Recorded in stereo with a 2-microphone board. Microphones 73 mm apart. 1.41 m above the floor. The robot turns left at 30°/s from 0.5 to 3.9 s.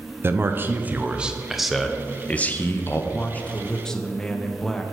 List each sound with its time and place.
0.2 s a man speaking: 145° right, 0.6 m; by 3.0 s 140° left, 0.6 m
3.1 s a man speaking: 30° left (ahead or behind), 0.6 m; by 4.8 s 10° left (ahead or behind), 0.6 m